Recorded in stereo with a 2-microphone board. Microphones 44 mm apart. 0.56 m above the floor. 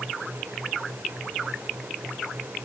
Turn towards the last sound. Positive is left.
No sound to turn to.